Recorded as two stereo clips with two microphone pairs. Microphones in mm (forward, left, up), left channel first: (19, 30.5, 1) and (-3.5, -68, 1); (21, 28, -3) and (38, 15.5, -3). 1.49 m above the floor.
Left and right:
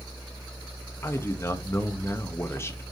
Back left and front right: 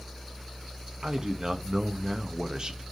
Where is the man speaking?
15° left, 1.0 m.